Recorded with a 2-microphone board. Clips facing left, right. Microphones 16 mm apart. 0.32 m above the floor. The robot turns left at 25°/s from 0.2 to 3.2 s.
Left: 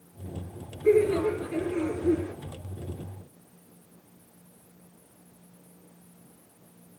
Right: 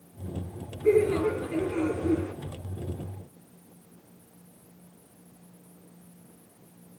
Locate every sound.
0.8 s laughter: 10° right, 3 m; by 2.3 s 45° right, 3 m